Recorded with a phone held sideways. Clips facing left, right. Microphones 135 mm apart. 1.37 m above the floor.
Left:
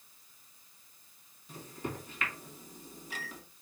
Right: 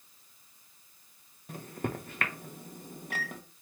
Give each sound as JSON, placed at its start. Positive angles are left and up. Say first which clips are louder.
{"t": 1.5, "sound": "a microwave", "louder": "right 4 dB", "side_deg": -55, "distance_m": 0.7}